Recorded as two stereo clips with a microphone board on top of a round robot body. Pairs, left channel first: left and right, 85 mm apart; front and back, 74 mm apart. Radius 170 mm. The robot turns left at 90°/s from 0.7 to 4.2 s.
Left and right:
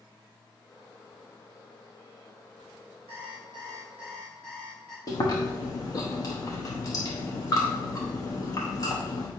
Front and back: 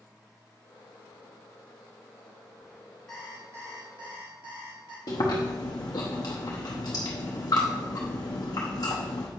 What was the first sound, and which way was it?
An alarm clock, 85° right.